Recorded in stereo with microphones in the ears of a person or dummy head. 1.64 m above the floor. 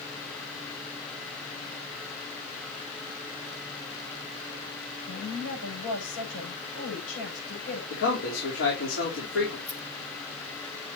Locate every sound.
5.1 s a woman speaking: 80° left, 7.5 m
7.9 s a man speaking: 85° left, 3.5 m
9.7 s a rattle: 5° left (ahead or behind), 1.0 m